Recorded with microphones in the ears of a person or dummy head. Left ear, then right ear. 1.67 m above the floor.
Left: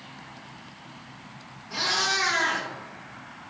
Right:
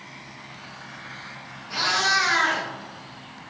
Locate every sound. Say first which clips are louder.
1.7 s a cat meowing: right 4 dB; 30° right (ahead or behind), 1.4 m